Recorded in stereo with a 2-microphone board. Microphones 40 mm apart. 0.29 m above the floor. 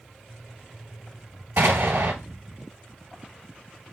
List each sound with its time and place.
1.6 s an explosion: 80° right, 1.9 m